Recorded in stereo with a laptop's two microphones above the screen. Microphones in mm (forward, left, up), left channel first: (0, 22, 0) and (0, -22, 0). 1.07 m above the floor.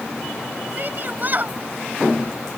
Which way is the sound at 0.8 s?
45° right (ahead or behind).